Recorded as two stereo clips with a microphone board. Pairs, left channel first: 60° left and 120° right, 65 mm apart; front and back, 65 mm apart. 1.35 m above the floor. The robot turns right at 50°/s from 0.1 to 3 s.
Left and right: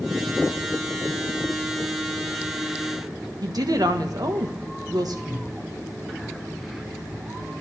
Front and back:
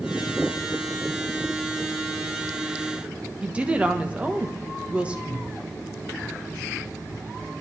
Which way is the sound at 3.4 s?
110° right.